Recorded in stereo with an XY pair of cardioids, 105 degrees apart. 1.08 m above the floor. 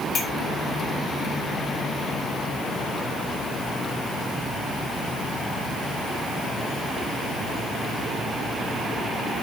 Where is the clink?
55° left, 1.2 m.